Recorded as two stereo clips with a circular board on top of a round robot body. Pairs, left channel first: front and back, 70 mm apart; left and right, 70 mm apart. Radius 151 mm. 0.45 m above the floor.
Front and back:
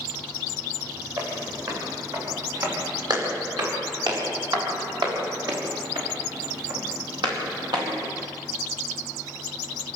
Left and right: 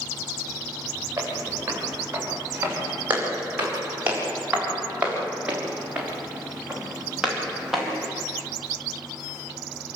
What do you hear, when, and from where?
1.2 s footsteps: 150° right, 8.5 m; by 8.2 s straight behind, 5.5 m